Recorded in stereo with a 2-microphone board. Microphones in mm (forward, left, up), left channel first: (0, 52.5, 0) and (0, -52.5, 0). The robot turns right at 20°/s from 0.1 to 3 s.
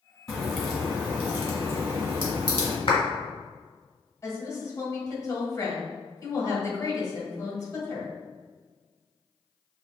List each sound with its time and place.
0.3 s a crack: 175° left, 1.5 m; by 2.8 s 135° right, 1.5 m
2.9 s a clap: 55° left (ahead or behind), 1.7 m
4.2 s a woman speaking: 30° left (ahead or behind), 1.5 m